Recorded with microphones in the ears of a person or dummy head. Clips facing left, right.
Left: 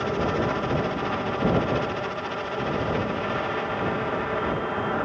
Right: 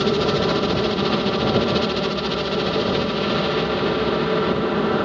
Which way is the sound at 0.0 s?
55° right (ahead or behind).